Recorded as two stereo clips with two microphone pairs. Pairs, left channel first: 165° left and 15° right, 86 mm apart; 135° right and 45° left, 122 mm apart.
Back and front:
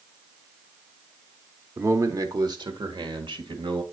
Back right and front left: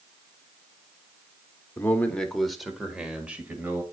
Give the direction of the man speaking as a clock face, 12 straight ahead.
2 o'clock.